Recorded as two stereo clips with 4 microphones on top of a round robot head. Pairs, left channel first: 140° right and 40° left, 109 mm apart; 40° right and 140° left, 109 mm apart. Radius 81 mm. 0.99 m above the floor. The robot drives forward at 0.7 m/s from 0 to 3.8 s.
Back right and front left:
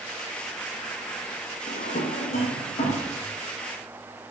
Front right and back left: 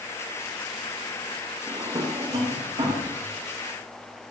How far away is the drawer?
About 0.5 m.